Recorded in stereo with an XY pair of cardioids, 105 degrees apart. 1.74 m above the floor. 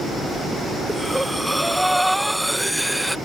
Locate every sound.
0.9 s breathing: 5° right